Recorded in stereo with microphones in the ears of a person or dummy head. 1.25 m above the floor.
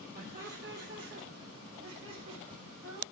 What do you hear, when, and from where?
0.1 s laughter: 65° right (ahead or behind), 2.5 m; by 3.0 s 70° right (ahead or behind), 4.5 m